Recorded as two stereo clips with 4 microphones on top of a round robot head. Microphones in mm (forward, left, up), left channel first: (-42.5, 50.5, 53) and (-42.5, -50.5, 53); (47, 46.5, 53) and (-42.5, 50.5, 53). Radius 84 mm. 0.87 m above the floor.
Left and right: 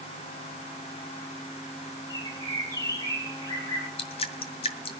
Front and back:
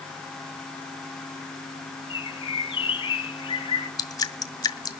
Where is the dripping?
40° left, 1.9 m.